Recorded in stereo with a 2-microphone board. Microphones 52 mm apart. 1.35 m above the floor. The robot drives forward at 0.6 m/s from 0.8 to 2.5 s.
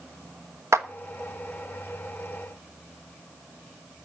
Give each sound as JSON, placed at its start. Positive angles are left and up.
{"t": 0.7, "sound": "a clap", "side_deg": -65, "distance_m": 1.4}